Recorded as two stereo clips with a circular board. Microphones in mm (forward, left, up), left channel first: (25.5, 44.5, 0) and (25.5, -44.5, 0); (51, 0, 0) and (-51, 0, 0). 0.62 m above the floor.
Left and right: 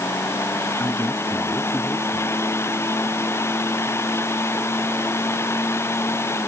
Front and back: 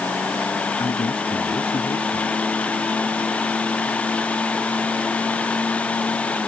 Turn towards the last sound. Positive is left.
turn(degrees=25)